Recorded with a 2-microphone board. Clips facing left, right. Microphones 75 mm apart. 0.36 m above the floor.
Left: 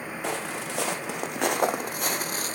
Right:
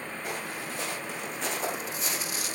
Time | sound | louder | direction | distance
0.2 | footsteps | left 6 dB | 80° left | 1.8 m